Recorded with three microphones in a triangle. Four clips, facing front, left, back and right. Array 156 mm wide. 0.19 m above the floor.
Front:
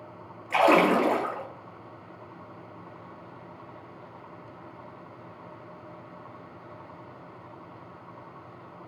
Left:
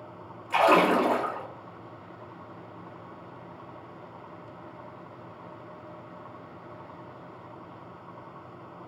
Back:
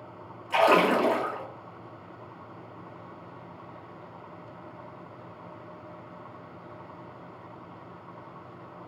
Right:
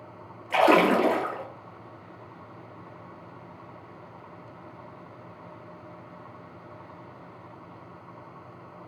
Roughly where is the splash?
Right.